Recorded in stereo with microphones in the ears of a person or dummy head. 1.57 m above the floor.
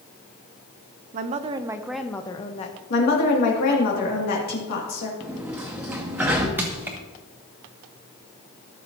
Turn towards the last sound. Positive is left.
turn(degrees=-10)  # may be behind; listen again after turning